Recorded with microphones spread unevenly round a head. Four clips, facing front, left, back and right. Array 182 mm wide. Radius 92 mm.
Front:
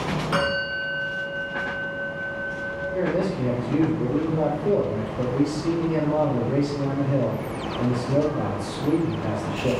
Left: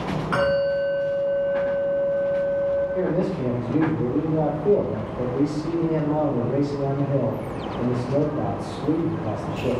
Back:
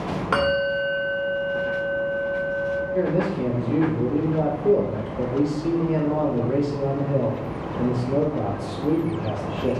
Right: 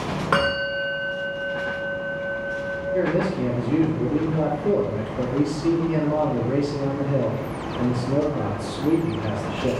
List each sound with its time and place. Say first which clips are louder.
0.3 s a bell: left 3 dB, back 6 dB; 130° right, 2.5 m
2.9 s a man speaking: right 1 dB, front 1 dB; 110° right, 3.5 m